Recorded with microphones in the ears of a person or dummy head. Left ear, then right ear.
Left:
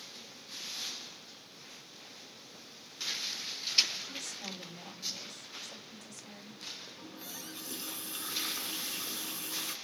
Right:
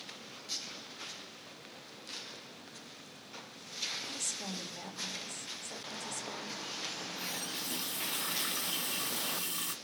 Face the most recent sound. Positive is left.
turn(degrees=-35)  # may be behind; listen again after turning